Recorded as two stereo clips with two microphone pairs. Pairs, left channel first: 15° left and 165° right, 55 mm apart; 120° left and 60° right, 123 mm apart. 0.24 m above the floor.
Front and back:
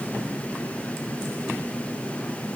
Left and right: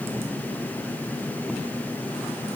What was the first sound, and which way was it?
Only background noise.